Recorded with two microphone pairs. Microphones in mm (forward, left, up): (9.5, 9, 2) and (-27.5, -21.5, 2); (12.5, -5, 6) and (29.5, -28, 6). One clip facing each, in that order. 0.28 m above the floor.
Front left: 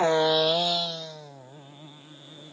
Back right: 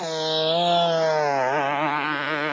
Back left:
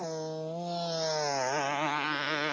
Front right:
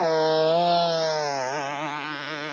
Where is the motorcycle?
20° right; by 2.5 s 150° right.